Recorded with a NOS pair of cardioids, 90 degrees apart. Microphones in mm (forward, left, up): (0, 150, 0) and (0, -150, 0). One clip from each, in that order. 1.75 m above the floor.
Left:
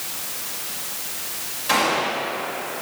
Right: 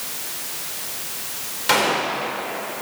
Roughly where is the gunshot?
Ahead right.